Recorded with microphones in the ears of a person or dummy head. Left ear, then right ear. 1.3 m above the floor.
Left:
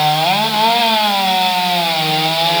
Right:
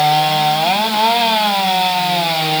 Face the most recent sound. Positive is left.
No sound to turn to.